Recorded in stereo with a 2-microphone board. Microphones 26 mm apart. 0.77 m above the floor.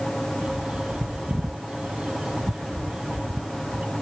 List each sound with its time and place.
0.4 s a bird: 45° right (ahead or behind)